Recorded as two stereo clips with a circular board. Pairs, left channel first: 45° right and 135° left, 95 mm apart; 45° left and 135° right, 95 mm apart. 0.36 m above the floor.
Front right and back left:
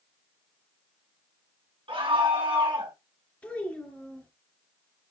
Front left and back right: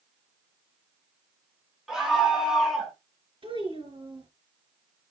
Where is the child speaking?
120° right, 3.5 m.